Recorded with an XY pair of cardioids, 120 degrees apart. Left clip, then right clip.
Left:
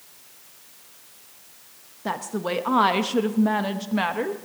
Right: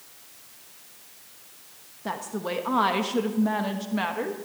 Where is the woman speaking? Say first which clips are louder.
Left 3 dB; 20° left, 1.0 m.